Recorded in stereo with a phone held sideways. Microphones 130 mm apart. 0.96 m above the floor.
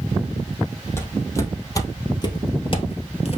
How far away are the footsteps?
About 2 m.